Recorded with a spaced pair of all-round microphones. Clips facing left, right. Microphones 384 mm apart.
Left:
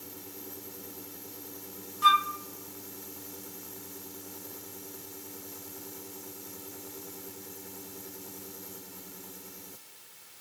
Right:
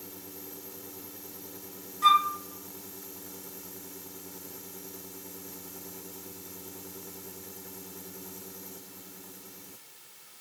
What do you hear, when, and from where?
2.0 s a flute: 25° left (ahead or behind), 0.5 m